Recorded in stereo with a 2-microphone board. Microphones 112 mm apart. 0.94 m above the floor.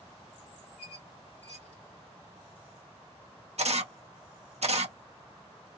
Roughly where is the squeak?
Right.